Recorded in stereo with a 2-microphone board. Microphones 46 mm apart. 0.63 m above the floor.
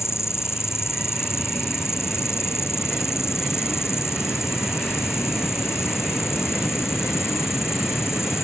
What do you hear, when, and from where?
0.0 s an insect: 85° left